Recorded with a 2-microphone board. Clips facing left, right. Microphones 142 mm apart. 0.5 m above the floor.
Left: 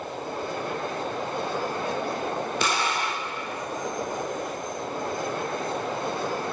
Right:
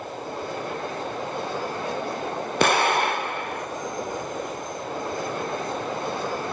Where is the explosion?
60° right (ahead or behind), 0.7 m.